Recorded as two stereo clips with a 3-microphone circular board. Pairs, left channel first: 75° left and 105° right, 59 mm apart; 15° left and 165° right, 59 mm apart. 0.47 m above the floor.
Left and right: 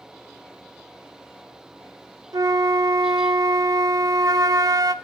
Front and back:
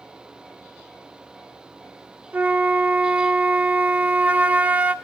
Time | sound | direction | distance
2.3 | a flute | 100° right | 0.7 m